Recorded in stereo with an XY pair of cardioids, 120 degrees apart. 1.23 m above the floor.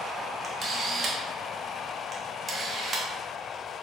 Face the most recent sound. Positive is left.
turn(degrees=-35)